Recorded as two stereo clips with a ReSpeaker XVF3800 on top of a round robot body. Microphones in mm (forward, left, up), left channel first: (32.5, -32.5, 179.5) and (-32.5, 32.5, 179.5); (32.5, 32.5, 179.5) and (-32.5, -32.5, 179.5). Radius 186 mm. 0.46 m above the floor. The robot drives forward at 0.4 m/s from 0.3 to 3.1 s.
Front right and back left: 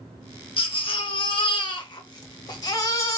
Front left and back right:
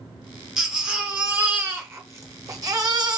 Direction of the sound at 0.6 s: 55° right.